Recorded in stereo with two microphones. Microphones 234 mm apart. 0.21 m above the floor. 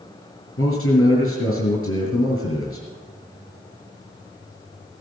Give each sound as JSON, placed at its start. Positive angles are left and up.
{"t": 0.6, "sound": "a man speaking", "side_deg": 65, "distance_m": 3.5}